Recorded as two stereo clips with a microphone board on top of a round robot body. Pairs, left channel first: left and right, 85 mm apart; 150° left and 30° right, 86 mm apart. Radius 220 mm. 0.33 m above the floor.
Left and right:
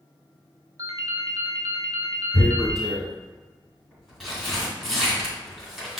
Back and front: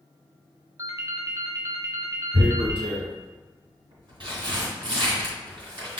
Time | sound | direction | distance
0.8 | a ringtone | 65° right | 1.0 m
2.3 | tearing paper | 5° right | 2.0 m